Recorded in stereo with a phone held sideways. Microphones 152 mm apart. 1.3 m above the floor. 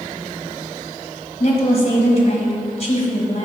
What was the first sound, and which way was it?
A woman speaking, 45° left (ahead or behind).